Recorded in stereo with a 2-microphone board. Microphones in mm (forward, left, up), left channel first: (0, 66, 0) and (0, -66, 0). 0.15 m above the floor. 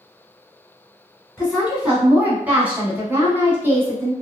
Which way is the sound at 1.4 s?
5° right (ahead or behind).